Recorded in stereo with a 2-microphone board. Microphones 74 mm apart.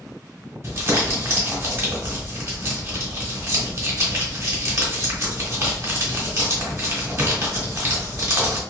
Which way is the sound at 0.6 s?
40° right (ahead or behind).